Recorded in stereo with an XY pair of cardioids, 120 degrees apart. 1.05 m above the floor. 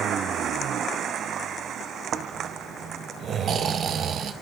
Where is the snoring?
45° right, 0.6 m.